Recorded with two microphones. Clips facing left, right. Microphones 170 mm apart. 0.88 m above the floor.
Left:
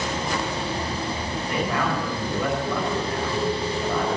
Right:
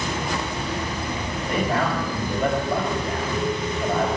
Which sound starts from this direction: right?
A man speaking, at 1.5 s.